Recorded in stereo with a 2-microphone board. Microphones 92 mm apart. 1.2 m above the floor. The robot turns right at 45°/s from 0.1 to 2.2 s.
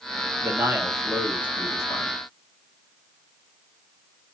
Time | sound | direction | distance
0.4 | a man speaking | 25° right | 2.0 m